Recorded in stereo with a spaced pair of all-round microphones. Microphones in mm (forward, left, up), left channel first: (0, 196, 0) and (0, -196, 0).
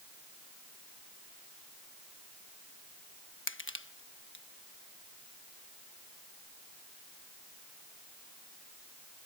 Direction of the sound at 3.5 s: 30° left (ahead or behind).